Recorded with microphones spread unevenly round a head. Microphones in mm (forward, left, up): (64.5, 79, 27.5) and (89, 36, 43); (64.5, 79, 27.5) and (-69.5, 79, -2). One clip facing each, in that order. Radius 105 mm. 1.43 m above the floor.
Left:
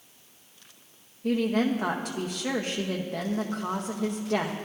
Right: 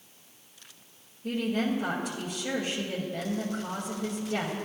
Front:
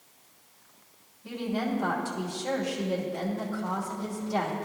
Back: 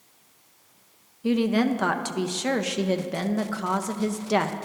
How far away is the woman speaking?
About 0.6 m.